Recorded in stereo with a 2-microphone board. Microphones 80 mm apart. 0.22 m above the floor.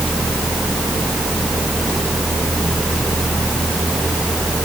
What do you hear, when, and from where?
Only background noise.